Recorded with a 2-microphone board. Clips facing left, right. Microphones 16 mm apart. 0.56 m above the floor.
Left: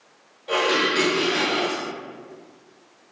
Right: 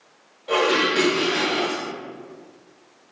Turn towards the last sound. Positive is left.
turn(degrees=5)  # may be behind; listen again after turning